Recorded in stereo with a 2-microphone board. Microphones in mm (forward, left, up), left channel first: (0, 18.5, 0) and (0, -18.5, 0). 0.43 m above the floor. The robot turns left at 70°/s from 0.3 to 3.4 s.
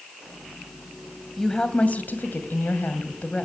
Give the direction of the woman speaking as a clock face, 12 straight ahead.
6 o'clock.